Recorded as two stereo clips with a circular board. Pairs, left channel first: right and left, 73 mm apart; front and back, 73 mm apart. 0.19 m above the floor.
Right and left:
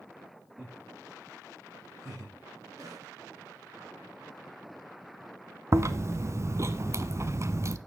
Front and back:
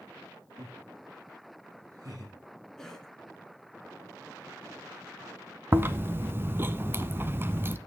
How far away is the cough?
About 3 m.